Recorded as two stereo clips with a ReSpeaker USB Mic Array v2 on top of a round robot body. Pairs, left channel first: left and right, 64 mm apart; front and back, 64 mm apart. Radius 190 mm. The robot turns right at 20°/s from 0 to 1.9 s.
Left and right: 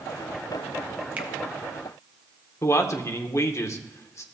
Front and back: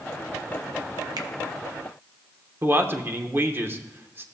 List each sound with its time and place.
1.2 s a finger snap: 155° right, 0.6 m
2.6 s a man speaking: 130° left, 1.1 m